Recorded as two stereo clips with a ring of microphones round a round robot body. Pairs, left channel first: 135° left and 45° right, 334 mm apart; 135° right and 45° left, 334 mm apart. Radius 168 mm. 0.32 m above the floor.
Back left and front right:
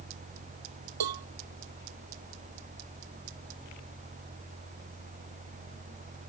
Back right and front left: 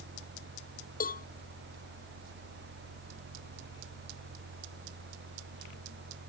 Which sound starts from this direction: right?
A cowbell, at 1.0 s.